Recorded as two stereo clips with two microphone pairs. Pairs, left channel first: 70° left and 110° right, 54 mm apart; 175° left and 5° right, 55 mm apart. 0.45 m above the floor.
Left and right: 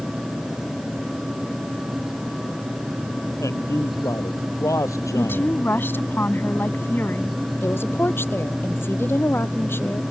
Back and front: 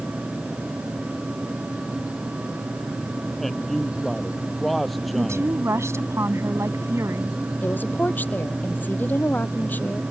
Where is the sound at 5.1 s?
25° left.